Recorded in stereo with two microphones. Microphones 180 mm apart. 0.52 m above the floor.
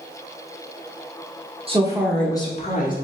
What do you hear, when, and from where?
1.7 s a woman speaking: 35° right (ahead or behind), 0.9 m; by 2.9 s 50° left (ahead or behind), 1.2 m